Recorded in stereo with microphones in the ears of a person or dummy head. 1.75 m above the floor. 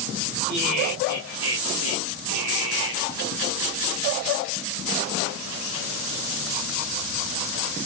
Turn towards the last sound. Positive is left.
turn(degrees=-65)  # may be behind; listen again after turning